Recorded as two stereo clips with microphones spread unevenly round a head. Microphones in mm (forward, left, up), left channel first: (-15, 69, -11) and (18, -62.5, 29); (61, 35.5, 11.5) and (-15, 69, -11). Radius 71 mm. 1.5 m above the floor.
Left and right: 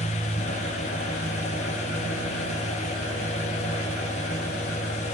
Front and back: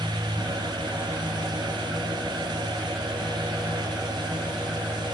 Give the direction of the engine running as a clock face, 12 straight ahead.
9 o'clock.